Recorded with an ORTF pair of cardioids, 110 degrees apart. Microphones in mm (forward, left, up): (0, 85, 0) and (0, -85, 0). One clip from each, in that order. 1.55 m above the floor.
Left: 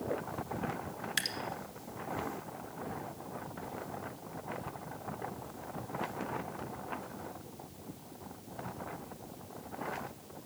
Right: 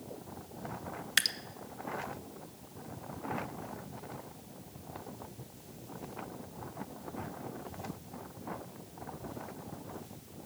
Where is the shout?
I don't hear a shout.